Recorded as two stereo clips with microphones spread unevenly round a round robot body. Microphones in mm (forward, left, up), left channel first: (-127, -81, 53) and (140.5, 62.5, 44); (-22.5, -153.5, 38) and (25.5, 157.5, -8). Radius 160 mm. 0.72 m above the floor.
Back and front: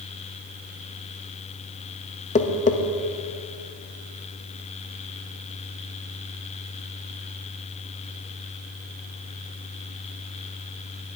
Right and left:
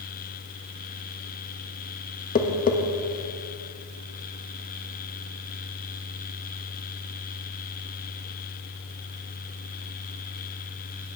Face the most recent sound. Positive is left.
turn(degrees=-140)